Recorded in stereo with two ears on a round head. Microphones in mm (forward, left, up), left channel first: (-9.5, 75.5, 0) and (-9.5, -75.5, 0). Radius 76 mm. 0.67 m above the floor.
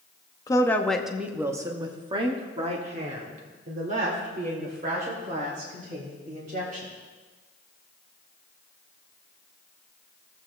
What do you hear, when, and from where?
0.5 s a woman speaking: 20° left (ahead or behind), 0.8 m; by 6.9 s 55° right (ahead or behind), 4 m